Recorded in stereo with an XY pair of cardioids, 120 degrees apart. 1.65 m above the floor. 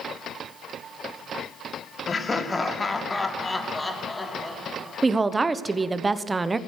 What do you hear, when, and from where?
2.1 s laughter: 25° left, 1.5 m; by 5.2 s 10° left, 3 m
5.0 s a woman speaking: 20° right, 1.0 m